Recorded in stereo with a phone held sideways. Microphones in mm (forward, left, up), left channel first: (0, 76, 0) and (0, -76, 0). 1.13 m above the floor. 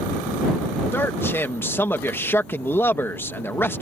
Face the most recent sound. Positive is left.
turn(degrees=15)  # may be behind; listen again after turning